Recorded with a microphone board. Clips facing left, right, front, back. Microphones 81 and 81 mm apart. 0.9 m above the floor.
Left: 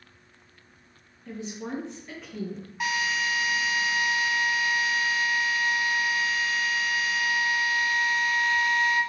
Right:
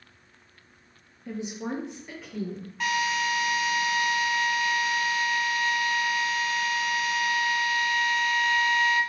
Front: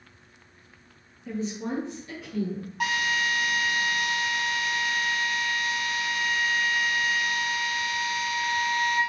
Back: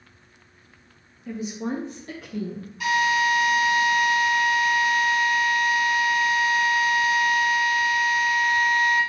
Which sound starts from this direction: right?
A woman speaking, at 1.3 s.